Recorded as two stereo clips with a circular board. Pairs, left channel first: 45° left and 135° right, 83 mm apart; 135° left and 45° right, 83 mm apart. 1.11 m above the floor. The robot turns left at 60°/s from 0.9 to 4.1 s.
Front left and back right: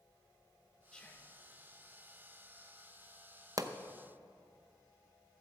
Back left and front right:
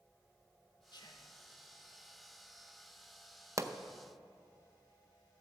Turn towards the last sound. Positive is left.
turn(degrees=-125)